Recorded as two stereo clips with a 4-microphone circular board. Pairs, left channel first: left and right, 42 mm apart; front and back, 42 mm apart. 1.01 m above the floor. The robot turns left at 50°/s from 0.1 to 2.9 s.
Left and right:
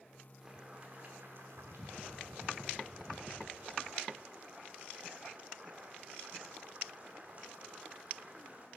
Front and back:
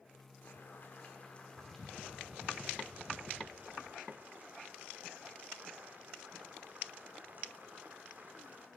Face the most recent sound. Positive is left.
turn(degrees=-140)